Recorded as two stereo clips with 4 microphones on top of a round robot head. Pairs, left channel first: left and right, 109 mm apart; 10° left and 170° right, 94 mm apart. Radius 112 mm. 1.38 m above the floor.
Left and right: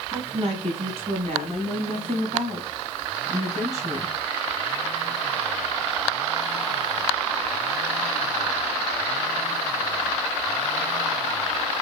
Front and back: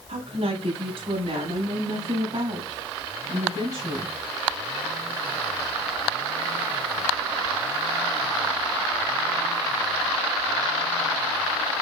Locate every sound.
0.1 s a woman speaking: 135° right, 7 m; by 4.2 s 110° right, 5.5 m